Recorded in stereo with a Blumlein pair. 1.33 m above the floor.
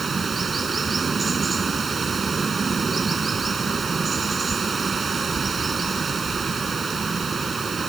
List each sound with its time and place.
0.0 s running water: 15° right